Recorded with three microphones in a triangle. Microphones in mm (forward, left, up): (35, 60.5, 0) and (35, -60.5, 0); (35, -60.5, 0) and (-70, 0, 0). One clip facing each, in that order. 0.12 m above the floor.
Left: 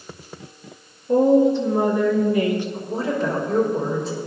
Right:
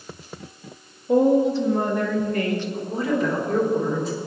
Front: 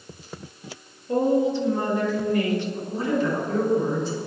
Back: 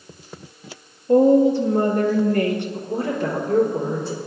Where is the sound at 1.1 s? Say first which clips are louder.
Left 2 dB, back 7 dB; 170° right, 2.5 m; by 2.6 s 160° left, 2.5 m.